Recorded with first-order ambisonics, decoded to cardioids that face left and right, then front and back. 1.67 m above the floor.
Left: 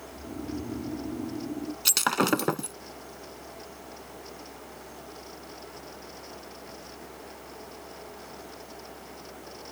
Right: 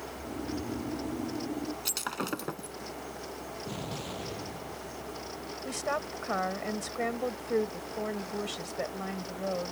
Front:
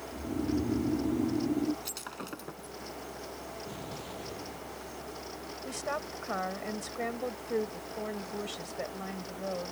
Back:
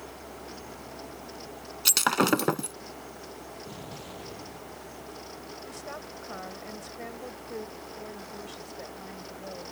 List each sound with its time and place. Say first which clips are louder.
0.1 s snoring: left 2 dB, front 8 dB; 5° left
1.9 s breaking glass: left 12 dB, back 17 dB; 150° left
3.7 s an explosion: right 6 dB, even; 95° right
5.7 s a woman speaking: right 11 dB, front 7 dB; 65° right